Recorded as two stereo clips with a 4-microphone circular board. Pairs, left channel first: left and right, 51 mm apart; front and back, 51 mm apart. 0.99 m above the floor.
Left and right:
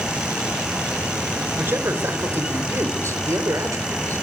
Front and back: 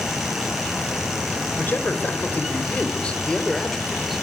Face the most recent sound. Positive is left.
turn(degrees=-95)